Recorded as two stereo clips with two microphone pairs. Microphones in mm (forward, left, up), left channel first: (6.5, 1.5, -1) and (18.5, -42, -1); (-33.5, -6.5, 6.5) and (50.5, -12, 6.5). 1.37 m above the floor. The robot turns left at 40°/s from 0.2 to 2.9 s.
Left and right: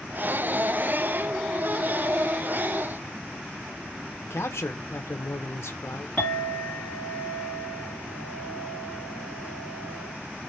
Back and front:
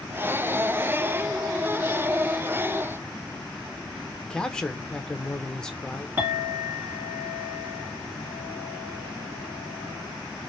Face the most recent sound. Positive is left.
turn(degrees=60)